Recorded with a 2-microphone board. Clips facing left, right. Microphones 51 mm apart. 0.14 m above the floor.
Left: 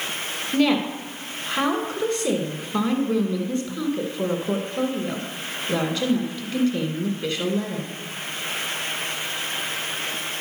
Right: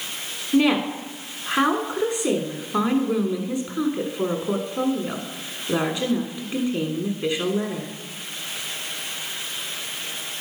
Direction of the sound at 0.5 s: 20° right (ahead or behind).